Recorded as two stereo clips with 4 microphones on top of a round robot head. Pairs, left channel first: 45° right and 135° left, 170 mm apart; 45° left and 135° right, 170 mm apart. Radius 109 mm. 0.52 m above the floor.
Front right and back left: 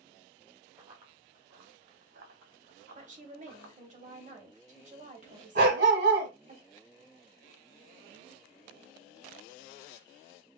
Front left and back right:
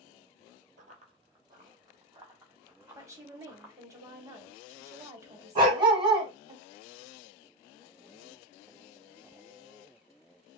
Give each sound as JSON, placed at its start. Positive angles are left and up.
{"t": 0.8, "sound": "running footsteps", "azimuth_deg": -175, "distance_m": 0.8}
{"t": 3.0, "sound": "a woman speaking", "azimuth_deg": 160, "distance_m": 1.7}
{"t": 5.5, "sound": "a dog barking", "azimuth_deg": 160, "distance_m": 1.5}